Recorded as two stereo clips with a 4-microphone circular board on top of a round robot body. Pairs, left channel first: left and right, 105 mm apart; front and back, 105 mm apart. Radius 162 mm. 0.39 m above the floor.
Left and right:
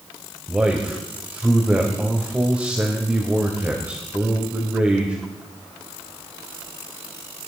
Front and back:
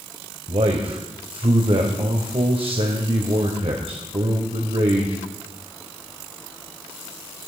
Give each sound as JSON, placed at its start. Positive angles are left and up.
{"t": 0.5, "sound": "a man speaking", "azimuth_deg": -165, "distance_m": 2.5}